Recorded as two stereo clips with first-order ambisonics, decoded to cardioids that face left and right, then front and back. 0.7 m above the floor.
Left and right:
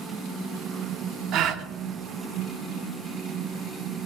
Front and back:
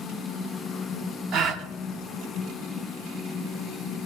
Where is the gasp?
130° right, 0.7 m.